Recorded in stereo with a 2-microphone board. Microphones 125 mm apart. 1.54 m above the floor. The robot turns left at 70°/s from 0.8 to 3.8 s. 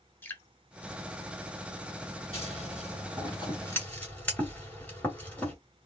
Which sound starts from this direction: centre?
Dripping, at 0.2 s.